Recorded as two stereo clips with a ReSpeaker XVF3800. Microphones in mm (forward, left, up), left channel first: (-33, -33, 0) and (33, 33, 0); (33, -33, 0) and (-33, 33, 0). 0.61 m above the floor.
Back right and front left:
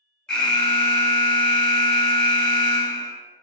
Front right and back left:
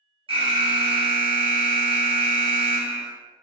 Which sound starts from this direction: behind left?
An alarm, at 0.3 s.